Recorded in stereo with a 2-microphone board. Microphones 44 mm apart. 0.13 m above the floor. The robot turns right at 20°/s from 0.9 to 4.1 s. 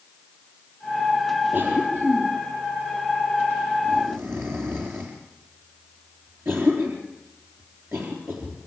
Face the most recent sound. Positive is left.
turn(degrees=-65)  # may be behind; listen again after turning